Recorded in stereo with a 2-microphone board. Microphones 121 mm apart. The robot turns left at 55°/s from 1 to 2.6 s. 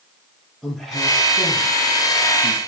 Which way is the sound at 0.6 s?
Centre (ahead or behind).